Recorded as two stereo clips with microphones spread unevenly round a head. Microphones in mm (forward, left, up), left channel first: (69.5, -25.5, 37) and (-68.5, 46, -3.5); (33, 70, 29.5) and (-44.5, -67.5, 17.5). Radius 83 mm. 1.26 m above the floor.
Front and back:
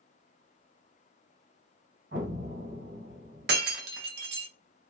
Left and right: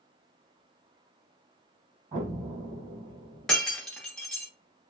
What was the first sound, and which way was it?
An explosion, 175° right.